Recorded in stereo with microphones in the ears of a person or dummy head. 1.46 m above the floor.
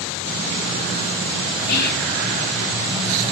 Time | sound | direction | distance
1.7 | whispering | 50° left (ahead or behind) | 1.0 m